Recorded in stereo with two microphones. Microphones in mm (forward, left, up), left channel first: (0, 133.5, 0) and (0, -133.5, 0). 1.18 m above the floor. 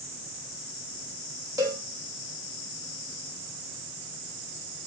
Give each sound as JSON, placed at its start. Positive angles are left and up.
{"t": 1.6, "sound": "a cowbell", "side_deg": -10, "distance_m": 1.2}